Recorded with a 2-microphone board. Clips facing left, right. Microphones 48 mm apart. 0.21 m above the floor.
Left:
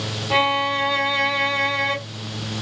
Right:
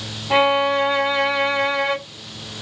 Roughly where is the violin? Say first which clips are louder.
Right 3 dB; right.